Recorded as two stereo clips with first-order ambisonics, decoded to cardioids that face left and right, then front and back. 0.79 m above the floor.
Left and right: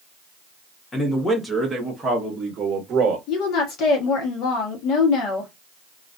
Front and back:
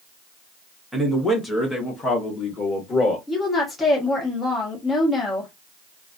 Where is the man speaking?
90° left, 0.8 m; by 3.2 s 50° right, 1.2 m.